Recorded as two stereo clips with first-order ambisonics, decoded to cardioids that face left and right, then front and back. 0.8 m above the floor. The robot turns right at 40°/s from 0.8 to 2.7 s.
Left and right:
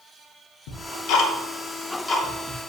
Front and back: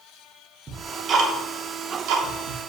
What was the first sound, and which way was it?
Ticking, 110° left.